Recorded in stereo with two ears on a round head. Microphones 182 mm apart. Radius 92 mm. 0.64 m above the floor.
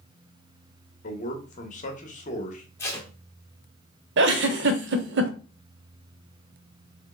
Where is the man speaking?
35° left (ahead or behind), 1.0 m.